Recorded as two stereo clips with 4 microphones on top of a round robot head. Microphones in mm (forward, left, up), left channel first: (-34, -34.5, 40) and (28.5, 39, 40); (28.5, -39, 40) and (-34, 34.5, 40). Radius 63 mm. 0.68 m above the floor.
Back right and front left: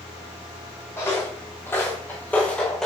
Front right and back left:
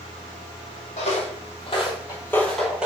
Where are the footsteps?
65° right, 1.1 m; by 2.9 s 160° left, 0.6 m.